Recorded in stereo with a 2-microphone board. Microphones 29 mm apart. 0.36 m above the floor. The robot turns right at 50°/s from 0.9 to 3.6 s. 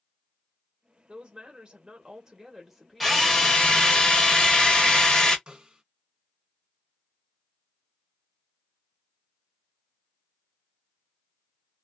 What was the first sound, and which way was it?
A woman speaking, 100° right.